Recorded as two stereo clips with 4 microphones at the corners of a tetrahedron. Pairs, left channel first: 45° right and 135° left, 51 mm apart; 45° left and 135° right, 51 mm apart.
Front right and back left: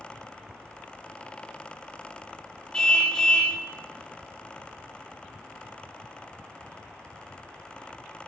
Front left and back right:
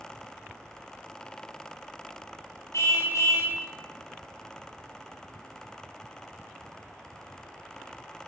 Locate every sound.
2.7 s a car horn: 30° left, 7 m